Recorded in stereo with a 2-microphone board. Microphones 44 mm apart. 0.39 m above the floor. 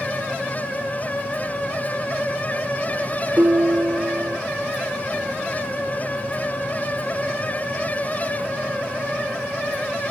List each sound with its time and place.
3.4 s dishes clattering: 50° right (ahead or behind), 3 m